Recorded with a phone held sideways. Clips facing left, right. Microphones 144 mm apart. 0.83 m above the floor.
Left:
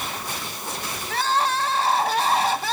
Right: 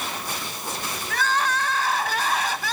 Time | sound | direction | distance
1.1 | crying | 30° left (ahead or behind) | 0.9 m